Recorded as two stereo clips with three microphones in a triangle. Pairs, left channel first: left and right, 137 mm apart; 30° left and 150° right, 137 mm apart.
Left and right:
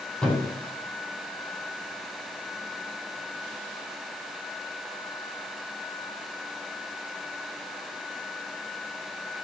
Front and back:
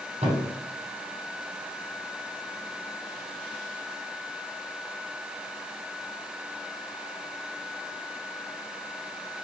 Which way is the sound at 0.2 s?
175° left.